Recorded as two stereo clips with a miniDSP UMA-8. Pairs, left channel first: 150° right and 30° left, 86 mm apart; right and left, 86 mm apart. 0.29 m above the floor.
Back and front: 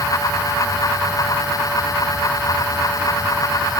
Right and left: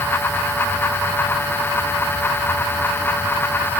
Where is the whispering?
No whispering in this recording.